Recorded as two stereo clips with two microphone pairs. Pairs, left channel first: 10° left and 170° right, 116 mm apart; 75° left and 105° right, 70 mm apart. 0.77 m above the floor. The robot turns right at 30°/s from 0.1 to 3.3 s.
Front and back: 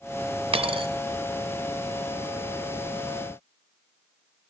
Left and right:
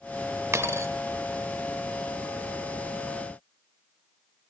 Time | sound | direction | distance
0.5 | a dropped coin | 145° right | 0.6 m